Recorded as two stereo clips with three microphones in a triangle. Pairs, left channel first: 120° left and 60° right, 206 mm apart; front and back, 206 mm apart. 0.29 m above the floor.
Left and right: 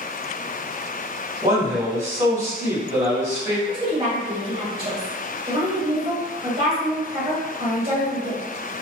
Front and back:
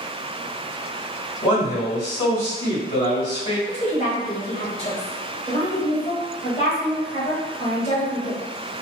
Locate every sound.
1.4 s a man speaking: straight ahead, 1.7 m
3.7 s a woman speaking: 25° right, 1.1 m